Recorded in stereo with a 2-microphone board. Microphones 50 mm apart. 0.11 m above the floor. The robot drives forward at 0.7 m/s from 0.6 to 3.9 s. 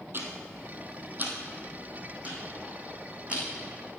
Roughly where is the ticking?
Right.